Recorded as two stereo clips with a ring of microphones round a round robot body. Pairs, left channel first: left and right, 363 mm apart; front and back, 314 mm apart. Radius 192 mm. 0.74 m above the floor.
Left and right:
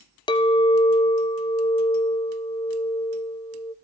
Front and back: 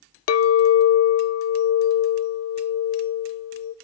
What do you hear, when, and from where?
0.3 s a clink: 15° left, 0.6 m